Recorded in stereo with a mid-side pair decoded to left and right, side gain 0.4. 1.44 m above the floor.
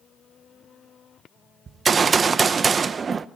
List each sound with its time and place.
1.7 s a gunshot: 45° right, 0.9 m